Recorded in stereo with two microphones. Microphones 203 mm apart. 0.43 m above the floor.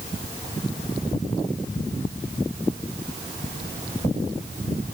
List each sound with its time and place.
Only background noise.